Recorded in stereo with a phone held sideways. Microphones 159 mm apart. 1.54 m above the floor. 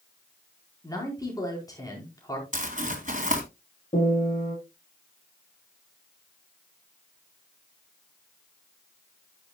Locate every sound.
0.8 s a man speaking: 25° left (ahead or behind), 4.5 m
2.5 s crumpling: 55° right (ahead or behind), 2.5 m
3.9 s a piano: 55° left (ahead or behind), 7 m